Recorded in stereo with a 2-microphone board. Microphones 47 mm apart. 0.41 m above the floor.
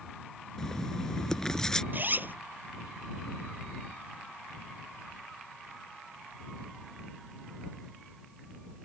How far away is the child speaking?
I don't hear a child speaking.